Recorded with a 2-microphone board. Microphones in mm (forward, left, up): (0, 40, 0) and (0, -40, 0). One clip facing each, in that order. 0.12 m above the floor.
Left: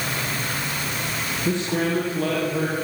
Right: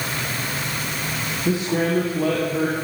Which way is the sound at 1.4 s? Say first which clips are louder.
Right 2 dB; 5° right (ahead or behind).